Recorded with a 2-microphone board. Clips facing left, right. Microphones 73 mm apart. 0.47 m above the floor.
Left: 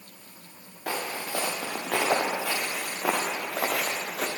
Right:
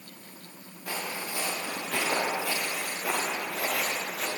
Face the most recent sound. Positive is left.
turn(degrees=60)  # may be behind; listen again after turning